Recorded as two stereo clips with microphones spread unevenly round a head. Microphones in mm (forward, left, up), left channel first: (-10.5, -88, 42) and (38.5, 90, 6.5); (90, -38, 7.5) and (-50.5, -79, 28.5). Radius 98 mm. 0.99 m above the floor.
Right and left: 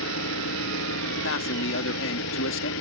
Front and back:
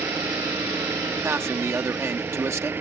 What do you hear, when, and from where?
0.0 s an engine running: 90° right
1.2 s a man speaking: 90° right